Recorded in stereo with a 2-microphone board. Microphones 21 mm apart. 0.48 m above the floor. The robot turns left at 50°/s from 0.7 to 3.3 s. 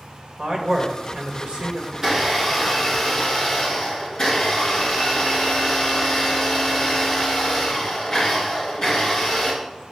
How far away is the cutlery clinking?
I don't hear cutlery clinking.